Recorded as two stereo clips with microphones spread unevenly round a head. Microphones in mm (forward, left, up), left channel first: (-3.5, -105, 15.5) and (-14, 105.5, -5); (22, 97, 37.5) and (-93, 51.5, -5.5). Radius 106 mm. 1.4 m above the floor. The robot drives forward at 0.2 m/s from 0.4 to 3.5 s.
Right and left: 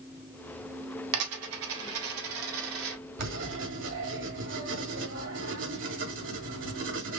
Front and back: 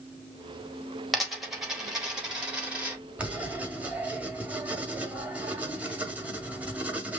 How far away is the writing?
About 1.7 m.